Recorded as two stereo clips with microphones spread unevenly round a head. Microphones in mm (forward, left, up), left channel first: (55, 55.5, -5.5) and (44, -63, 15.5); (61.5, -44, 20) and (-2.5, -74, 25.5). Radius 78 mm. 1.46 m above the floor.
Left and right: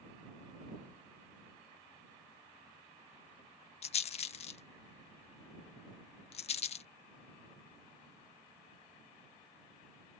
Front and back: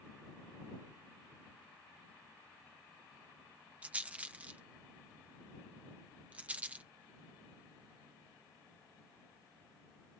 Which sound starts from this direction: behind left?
A rattle, at 3.8 s.